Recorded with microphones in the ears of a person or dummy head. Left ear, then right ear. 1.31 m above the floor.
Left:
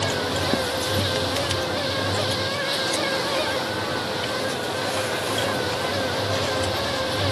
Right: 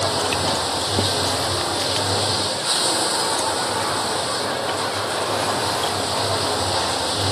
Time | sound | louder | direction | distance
0.0 | running water | right 3 dB | 35° right (ahead or behind) | ?